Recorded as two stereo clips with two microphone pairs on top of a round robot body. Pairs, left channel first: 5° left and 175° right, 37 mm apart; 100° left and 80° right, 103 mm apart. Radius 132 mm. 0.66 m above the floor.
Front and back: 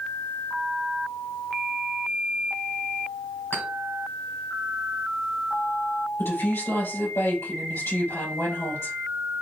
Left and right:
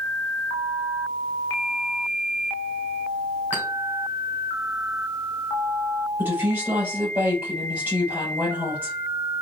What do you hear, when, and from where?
3.5 s a clink: straight ahead, 2.5 m
6.2 s a woman speaking: 5° right, 3 m